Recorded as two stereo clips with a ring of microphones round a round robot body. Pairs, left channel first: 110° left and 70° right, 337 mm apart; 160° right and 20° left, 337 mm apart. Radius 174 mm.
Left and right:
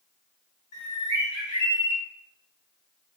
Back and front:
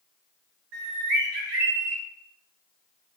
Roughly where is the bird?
Ahead left.